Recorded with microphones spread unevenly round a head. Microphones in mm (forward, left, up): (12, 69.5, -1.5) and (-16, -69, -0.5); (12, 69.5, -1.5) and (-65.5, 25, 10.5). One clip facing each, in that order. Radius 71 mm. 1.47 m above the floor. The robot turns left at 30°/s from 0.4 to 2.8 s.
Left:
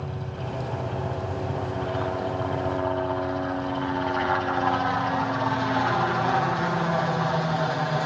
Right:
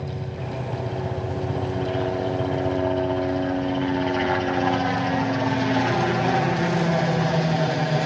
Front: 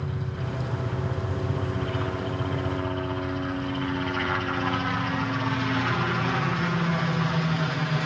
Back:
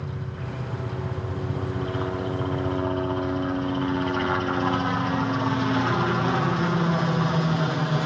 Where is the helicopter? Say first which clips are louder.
Right 2 dB, front 2 dB; 45° right; by 8.1 s 115° right.